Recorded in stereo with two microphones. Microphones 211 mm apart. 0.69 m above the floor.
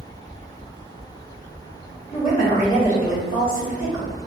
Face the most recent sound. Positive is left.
turn(degrees=45)  # may be behind; listen again after turning